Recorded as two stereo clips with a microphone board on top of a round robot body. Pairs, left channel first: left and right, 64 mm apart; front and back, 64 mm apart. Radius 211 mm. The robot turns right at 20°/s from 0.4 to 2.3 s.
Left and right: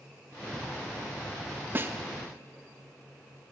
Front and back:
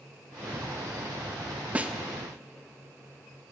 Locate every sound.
1.8 s a snare drum: 125° right, 1.6 m; by 1.9 s 120° right, 1.6 m